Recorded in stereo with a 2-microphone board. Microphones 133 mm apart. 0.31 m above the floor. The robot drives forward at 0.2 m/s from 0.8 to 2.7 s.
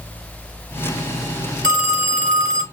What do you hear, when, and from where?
1.6 s a phone ringing: 40° left (ahead or behind), 3 m; by 2.6 s 45° left (ahead or behind), 3 m